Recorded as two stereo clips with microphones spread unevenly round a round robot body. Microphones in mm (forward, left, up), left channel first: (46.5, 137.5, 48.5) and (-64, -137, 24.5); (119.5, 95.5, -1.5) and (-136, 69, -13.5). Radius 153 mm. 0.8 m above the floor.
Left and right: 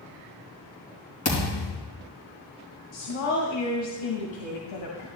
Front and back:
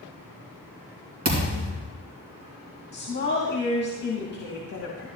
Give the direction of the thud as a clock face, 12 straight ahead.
8 o'clock.